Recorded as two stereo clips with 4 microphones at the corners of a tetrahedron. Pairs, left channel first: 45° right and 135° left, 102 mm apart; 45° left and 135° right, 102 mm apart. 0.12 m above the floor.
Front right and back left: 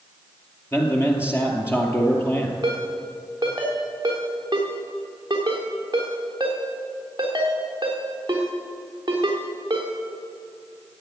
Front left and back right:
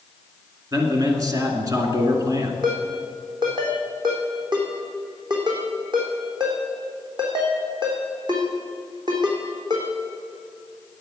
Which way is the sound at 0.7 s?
100° right.